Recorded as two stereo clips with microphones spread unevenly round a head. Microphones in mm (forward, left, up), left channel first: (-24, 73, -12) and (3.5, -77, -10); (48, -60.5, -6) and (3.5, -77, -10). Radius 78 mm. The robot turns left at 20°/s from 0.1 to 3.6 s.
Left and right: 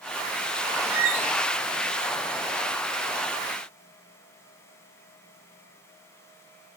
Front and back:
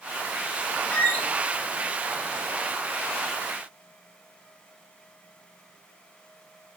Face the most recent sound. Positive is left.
turn(degrees=-55)